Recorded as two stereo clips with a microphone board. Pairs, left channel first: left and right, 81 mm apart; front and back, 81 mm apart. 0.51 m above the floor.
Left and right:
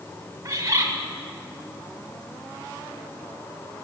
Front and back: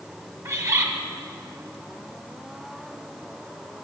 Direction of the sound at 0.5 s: 130° right.